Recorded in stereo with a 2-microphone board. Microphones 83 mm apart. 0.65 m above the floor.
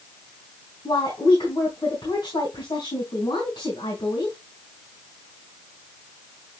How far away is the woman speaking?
About 4 m.